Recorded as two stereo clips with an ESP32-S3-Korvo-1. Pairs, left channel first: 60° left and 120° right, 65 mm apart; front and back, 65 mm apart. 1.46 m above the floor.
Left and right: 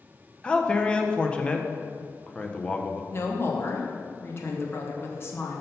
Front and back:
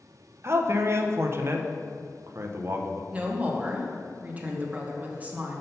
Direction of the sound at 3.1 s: 110° left.